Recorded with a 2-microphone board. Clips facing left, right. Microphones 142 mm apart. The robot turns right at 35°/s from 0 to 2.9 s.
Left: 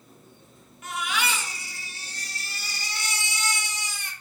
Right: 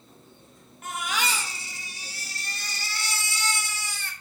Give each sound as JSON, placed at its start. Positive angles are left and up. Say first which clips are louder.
{"t": 0.8, "sound": "a baby crying", "louder": "left 1 dB", "azimuth_deg": -55, "distance_m": 0.7}